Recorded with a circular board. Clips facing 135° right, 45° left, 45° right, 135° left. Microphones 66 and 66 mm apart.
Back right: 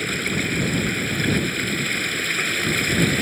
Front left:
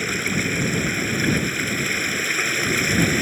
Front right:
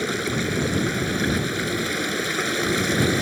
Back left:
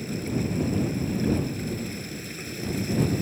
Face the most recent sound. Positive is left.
turn(degrees=-35)